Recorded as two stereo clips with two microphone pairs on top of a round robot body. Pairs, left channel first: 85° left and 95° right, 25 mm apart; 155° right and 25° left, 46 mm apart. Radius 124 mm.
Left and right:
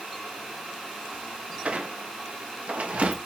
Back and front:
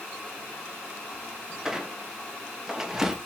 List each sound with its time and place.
1.6 s a squeak: 60° right, 0.5 m